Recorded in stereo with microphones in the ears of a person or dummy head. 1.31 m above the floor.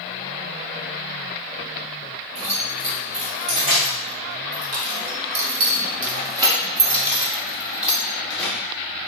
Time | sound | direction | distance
2.4 | keys jangling | 30° right (ahead or behind) | 1.8 m